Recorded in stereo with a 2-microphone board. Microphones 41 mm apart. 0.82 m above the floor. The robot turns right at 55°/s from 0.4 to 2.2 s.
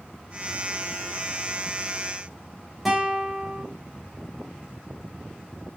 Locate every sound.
2.9 s a guitar: centre (ahead or behind), 4.5 m